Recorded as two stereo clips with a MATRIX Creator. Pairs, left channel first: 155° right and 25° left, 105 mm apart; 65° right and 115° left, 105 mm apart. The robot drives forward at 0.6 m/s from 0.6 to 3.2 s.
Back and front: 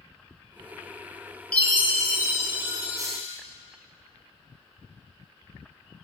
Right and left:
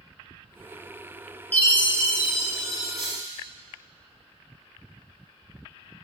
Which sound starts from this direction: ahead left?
A hiss, at 3.0 s.